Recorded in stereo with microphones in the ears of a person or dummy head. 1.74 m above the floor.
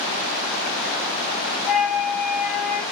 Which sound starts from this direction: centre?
A flute, at 1.7 s.